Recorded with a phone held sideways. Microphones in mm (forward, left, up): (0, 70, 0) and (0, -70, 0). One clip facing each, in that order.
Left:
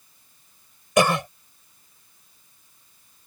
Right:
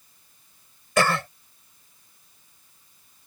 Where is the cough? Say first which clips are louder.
Left 3 dB; 15° left (ahead or behind).